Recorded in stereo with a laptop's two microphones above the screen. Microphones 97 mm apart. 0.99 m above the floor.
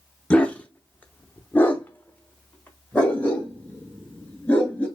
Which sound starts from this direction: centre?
A dog barking, at 0.3 s.